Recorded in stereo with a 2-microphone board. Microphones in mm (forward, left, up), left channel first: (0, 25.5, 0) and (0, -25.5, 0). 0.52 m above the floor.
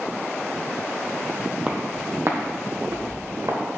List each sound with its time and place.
1.7 s footsteps: 15° right (ahead or behind), 1.1 m; by 3.6 s 80° right, 3 m